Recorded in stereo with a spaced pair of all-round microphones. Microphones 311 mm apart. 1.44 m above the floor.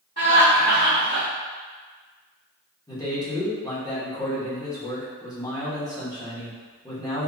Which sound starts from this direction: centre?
A man speaking, at 2.9 s.